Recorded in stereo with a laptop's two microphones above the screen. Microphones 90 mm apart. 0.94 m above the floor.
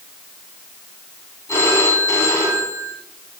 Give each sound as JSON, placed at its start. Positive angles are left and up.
{"t": 1.5, "sound": "a phone ringing", "side_deg": 30, "distance_m": 6.5}